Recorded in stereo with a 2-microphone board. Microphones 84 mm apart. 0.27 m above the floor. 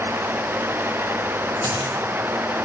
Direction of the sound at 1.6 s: 65° left (ahead or behind).